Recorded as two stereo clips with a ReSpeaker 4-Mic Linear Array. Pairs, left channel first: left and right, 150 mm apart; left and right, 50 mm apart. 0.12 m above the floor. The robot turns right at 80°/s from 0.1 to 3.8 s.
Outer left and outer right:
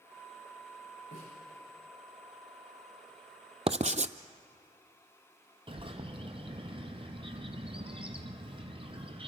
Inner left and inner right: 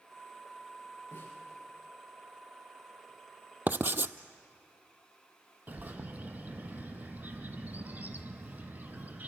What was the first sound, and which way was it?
A snare drum, 85° left.